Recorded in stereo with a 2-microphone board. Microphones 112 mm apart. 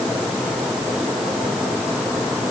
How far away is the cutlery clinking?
I don't hear cutlery clinking.